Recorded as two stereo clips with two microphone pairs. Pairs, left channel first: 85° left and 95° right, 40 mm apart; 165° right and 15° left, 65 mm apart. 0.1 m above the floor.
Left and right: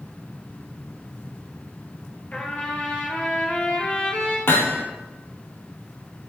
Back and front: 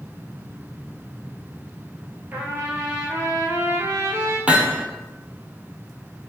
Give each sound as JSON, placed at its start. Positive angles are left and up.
{"t": 2.3, "sound": "a trumpet", "azimuth_deg": 55, "distance_m": 1.3}
{"t": 4.5, "sound": "hammering", "azimuth_deg": 80, "distance_m": 0.8}